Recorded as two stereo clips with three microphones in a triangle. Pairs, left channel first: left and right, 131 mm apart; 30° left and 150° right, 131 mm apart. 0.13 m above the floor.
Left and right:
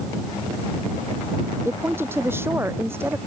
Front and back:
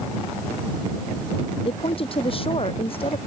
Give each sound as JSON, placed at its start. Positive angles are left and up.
{"t": 1.6, "sound": "a woman speaking", "azimuth_deg": -15}